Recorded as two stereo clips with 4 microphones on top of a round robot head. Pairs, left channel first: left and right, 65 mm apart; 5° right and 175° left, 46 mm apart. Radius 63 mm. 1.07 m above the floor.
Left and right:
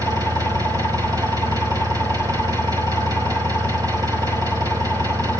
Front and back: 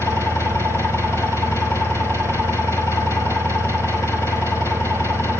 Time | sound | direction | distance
0.0 | an engine running | 45° right | 5.5 m